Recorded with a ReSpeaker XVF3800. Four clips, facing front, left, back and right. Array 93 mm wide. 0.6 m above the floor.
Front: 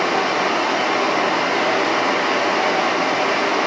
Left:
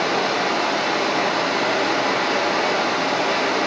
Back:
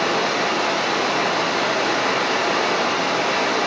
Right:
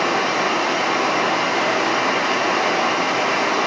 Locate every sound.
0.0 s running water: 50° right, 4 m